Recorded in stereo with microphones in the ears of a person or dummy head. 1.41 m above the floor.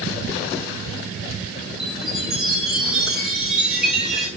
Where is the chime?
Centre (ahead or behind), 4 m.